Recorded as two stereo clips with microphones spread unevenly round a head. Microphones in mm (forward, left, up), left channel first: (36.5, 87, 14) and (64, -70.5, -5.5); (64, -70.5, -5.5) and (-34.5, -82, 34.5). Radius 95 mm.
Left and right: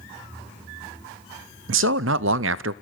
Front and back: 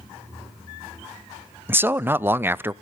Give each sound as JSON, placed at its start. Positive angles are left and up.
{"t": 1.7, "sound": "a man speaking", "azimuth_deg": -105, "distance_m": 0.5}